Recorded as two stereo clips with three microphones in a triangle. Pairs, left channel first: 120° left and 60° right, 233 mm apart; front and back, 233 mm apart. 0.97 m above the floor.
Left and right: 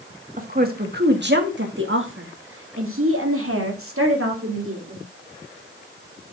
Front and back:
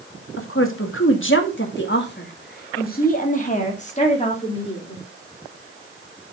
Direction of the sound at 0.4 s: 10° right.